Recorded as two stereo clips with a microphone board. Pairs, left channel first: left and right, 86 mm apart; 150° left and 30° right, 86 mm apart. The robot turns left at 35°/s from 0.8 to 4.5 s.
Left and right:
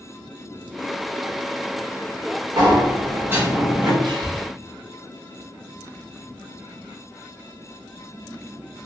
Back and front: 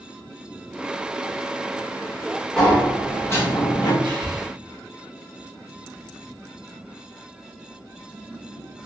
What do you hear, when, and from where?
2.6 s a sliding door: 125° right, 0.8 m; by 3.9 s 170° right, 0.8 m
4.0 s breathing: 55° right, 0.6 m; by 4.5 s 70° right, 0.6 m